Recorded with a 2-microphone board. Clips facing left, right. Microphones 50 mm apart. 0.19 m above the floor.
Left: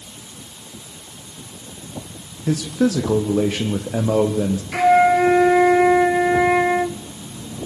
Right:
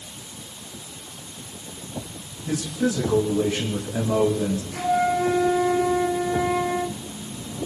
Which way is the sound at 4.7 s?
80° left.